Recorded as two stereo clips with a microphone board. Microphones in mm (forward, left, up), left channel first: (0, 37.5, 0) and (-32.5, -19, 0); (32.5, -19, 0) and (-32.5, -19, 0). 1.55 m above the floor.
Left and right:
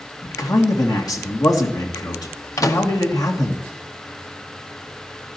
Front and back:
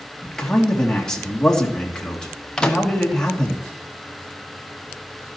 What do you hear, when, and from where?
0.2 s a man speaking: 80° left, 2.5 m
2.6 s a microwave: 75° left, 1.3 m